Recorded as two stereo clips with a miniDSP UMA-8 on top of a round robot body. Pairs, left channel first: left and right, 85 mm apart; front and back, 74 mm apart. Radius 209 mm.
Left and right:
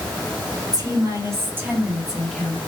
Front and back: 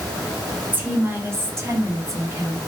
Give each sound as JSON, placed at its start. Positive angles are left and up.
{"t": 0.7, "sound": "a woman speaking", "azimuth_deg": -120, "distance_m": 1.2}